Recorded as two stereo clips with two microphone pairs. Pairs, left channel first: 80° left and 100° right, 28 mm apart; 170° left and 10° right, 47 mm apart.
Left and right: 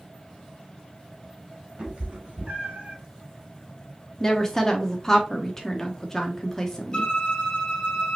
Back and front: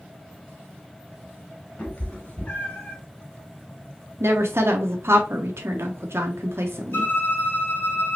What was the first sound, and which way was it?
A cat meowing, 145° right.